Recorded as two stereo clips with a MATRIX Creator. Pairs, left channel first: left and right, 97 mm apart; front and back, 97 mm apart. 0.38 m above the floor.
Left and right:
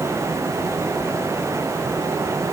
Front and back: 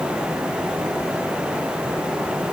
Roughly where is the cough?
No cough in this recording.